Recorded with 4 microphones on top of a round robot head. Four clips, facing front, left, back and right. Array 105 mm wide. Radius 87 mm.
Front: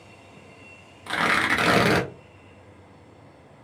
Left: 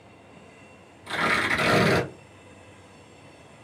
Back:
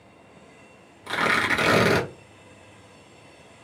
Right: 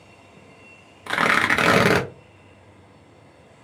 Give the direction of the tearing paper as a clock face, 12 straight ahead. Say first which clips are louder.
Right 5 dB, even; 3 o'clock.